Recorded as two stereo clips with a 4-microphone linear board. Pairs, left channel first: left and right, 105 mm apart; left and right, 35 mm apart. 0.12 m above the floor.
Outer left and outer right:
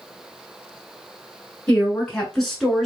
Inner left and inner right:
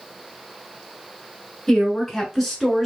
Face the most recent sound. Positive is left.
turn(degrees=0)  # may be behind; listen again after turning